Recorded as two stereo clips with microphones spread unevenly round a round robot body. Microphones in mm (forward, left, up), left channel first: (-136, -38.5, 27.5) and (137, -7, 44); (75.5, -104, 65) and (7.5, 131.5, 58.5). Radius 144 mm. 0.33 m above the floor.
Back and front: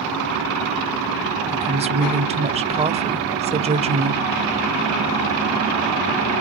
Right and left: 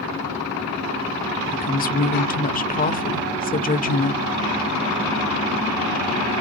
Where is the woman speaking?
50° right, 1.1 m.